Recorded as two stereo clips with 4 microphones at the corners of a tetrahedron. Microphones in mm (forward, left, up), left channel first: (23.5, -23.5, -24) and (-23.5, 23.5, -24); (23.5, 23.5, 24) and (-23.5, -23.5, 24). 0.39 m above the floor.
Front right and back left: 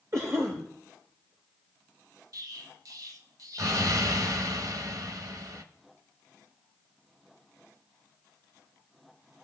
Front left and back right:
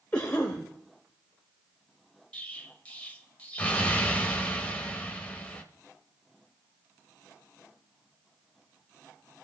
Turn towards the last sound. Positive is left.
turn(degrees=115)